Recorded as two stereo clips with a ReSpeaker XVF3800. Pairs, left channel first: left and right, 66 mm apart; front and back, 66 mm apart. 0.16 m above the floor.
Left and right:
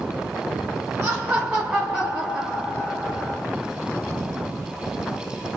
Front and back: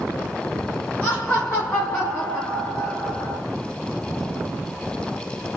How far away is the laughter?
About 1.6 m.